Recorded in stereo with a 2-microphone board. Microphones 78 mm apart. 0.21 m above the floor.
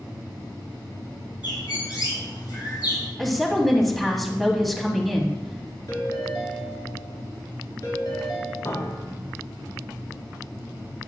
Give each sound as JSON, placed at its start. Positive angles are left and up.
{"t": 1.4, "sound": "a bird", "side_deg": 75, "distance_m": 2.5}
{"t": 3.2, "sound": "a woman speaking", "side_deg": 0, "distance_m": 1.0}
{"t": 5.9, "sound": "a ringtone", "side_deg": 60, "distance_m": 1.9}
{"t": 8.7, "sound": "a piano", "side_deg": 45, "distance_m": 1.1}